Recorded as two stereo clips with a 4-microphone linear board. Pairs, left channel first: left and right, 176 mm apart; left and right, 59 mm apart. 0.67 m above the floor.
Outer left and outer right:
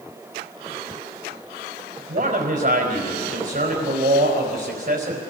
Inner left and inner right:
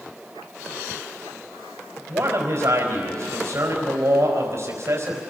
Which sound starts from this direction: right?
A man speaking, at 2.1 s.